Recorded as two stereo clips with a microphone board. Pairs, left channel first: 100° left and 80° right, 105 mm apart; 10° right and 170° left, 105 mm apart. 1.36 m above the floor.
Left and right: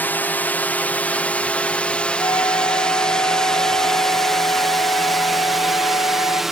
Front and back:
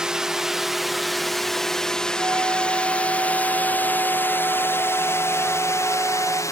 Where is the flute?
125° left.